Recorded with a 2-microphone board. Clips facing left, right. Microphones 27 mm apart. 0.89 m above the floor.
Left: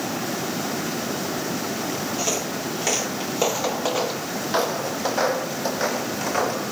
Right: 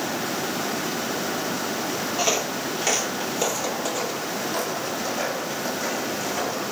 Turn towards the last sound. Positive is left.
turn(degrees=55)  # may be behind; listen again after turning